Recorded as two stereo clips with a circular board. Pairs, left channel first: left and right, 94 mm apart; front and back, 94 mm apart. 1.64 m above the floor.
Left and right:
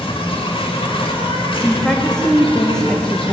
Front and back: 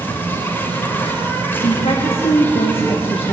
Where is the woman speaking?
10° left, 1.9 m.